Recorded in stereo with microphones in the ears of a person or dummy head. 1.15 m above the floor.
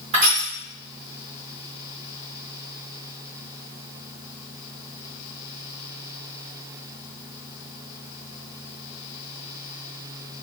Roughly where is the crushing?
Right.